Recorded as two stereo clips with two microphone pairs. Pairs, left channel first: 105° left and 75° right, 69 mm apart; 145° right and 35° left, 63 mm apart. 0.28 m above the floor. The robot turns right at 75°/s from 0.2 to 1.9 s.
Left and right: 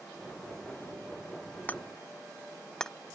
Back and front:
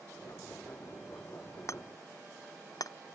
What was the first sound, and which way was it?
Hammering, 170° left.